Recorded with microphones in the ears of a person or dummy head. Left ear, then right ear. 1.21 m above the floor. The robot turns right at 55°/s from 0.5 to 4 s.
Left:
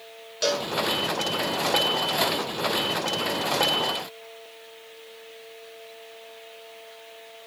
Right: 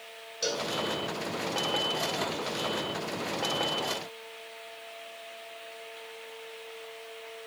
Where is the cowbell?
40° left (ahead or behind), 0.9 m; by 0.7 s 35° left (ahead or behind), 0.9 m.